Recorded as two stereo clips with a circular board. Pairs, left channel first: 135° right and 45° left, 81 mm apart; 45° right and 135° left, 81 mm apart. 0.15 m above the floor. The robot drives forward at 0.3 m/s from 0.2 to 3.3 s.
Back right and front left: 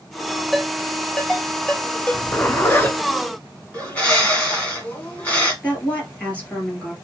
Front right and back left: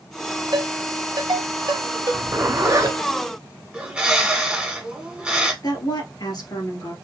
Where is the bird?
175° right, 1.7 m.